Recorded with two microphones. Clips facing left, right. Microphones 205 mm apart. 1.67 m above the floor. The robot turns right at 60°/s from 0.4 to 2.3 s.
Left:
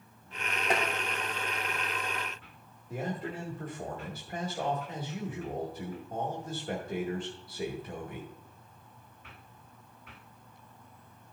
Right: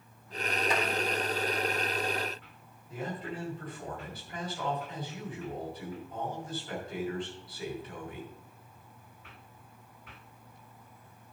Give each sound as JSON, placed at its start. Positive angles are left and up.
{"t": 0.7, "sound": "tapping", "side_deg": 60, "distance_m": 3.0}
{"t": 2.9, "sound": "a man speaking", "side_deg": 45, "distance_m": 2.0}